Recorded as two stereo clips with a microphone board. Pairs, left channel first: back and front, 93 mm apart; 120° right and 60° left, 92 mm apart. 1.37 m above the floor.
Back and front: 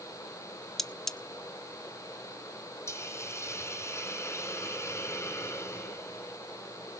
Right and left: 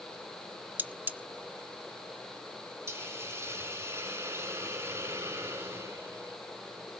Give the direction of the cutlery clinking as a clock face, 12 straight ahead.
9 o'clock.